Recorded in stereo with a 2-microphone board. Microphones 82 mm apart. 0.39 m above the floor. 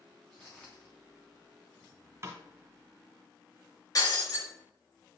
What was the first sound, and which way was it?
Footsteps, 15° left (ahead or behind).